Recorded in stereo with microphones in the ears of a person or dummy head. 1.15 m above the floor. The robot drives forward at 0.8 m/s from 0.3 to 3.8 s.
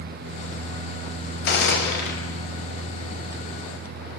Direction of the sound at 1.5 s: 65° left (ahead or behind).